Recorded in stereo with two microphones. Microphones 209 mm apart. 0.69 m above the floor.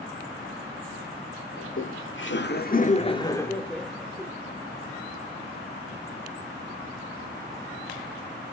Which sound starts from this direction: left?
Laughter, at 1.6 s.